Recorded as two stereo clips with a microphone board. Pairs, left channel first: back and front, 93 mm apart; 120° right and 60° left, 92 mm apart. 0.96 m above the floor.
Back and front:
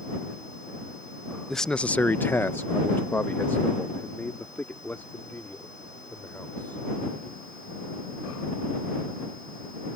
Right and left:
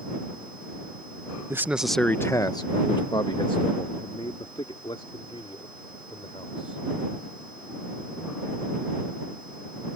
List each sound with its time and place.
1.5 s a man speaking: 95° left; by 6.8 s 110° right